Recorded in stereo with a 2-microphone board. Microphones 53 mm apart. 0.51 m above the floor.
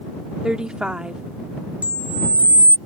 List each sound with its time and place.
0.4 s a woman speaking: 15° right (ahead or behind)
1.8 s a camera shutter: 30° right (ahead or behind)